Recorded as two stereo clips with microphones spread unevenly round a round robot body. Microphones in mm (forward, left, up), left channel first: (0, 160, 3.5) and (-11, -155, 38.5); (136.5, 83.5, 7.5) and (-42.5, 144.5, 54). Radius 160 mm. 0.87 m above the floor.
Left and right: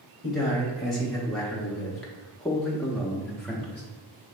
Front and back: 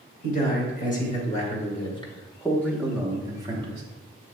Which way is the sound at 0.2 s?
Straight ahead.